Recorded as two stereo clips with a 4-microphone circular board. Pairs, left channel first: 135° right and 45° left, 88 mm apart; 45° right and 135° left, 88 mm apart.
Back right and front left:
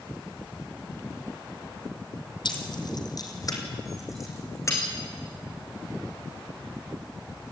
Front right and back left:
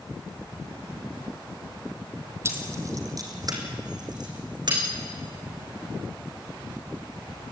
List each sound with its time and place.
2.5 s keys jangling: 165° right, 2.5 m; by 4.8 s 165° left, 5.5 m